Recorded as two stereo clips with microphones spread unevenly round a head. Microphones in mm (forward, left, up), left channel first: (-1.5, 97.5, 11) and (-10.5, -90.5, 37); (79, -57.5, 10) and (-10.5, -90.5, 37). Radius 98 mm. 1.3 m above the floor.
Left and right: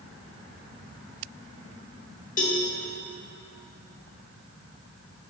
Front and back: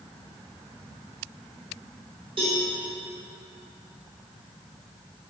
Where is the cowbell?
135° left, 1.1 m.